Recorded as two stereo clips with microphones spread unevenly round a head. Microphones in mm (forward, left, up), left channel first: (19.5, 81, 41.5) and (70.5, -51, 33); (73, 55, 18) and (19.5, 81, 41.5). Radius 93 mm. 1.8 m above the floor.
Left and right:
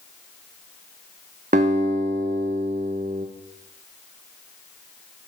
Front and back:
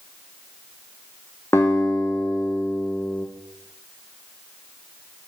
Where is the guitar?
110° right, 0.6 m.